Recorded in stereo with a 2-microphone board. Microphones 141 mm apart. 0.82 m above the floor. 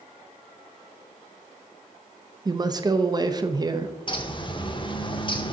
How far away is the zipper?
No zipper in this recording.